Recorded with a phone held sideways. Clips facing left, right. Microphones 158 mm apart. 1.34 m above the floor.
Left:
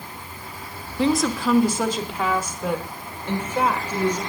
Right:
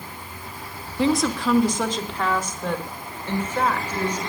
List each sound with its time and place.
1.0 s a woman speaking: centre (ahead or behind), 1.5 m; by 4.2 s 10° left (ahead or behind), 5.5 m